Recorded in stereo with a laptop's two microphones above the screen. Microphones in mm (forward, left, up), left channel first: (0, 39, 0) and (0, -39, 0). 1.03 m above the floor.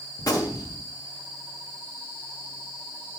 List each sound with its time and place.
0.2 s a gunshot: 50° left (ahead or behind), 1.6 m